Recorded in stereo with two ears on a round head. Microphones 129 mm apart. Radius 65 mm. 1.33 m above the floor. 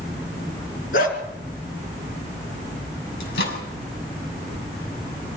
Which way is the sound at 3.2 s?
80° left.